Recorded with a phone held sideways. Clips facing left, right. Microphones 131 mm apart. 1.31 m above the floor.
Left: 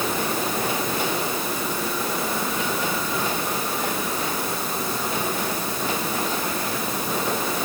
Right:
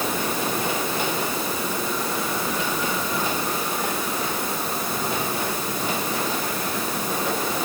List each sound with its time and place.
Only background noise.